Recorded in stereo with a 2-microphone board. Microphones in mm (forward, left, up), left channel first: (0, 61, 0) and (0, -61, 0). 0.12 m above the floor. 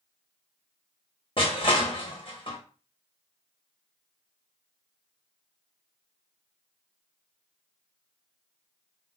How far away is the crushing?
About 1.4 m.